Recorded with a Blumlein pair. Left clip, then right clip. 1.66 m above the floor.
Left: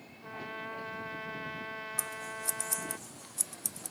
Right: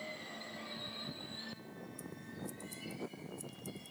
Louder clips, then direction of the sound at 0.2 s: Left 6 dB; 40° left.